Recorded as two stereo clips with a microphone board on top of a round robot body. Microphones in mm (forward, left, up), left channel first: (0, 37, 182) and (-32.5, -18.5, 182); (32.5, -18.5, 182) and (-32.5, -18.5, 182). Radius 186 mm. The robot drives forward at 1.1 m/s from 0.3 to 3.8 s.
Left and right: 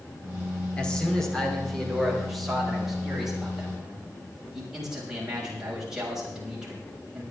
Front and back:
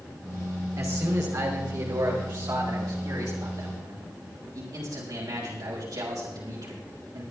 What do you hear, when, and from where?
0.8 s a man speaking: 135° left, 3 m; by 7.2 s 160° left, 6 m